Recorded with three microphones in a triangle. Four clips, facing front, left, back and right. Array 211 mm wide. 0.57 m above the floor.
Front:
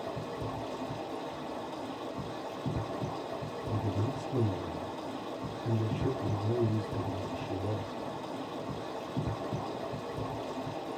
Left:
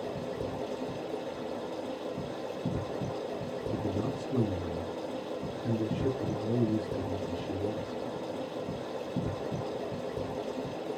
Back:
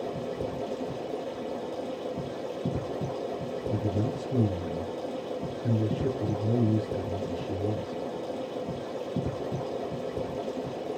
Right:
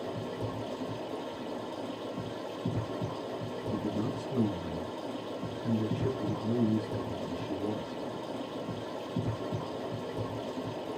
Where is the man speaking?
Straight behind, 7 m.